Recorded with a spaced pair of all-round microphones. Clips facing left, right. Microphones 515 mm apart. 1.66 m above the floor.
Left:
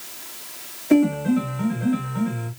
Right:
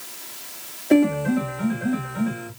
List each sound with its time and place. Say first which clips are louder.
0.9 s a piano: even; 25° left (ahead or behind), 2 m